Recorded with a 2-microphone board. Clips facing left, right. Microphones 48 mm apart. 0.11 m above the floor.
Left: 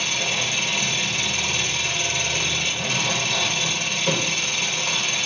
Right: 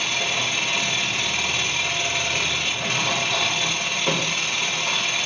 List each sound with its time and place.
0.0 s an engine running: 15° right (ahead or behind), 4 m